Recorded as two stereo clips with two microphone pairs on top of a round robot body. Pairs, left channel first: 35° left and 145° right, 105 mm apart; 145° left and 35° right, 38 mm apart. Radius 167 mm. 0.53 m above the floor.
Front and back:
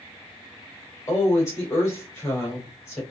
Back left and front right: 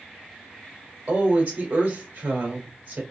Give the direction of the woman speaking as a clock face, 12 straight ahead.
1 o'clock.